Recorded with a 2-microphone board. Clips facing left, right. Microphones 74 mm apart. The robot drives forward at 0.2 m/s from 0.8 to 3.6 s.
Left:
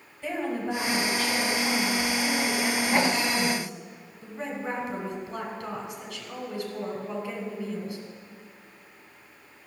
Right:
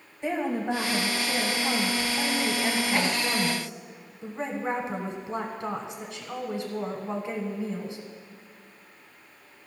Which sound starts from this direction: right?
A woman speaking, at 0.2 s.